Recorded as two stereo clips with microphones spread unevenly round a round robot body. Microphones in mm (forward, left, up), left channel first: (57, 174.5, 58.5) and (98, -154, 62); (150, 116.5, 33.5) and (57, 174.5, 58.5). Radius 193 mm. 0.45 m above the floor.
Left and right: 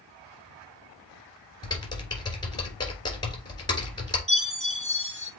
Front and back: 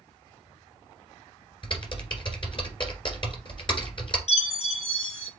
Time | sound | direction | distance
1.6 | typing on a keyboard | 20° left | 2.0 m
4.3 | a chime | 10° right | 4 m